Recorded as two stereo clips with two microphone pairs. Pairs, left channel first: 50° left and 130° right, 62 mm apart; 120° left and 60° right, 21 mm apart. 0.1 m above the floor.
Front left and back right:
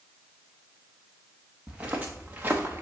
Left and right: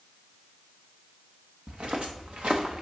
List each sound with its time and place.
1.7 s footsteps: 55° right, 1.8 m; by 2.8 s 70° right, 1.2 m